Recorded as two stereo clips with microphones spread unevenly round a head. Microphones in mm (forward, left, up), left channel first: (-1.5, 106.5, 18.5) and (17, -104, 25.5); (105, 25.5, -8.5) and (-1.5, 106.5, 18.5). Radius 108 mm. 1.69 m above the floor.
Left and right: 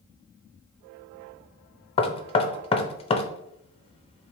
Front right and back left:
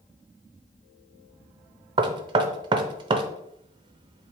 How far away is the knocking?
About 0.6 m.